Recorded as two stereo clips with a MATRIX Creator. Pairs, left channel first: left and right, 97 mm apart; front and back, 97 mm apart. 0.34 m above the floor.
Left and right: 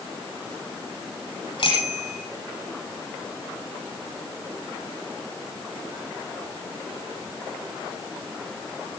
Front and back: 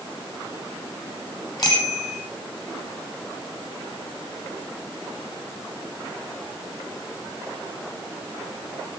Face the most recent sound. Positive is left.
turn(degrees=50)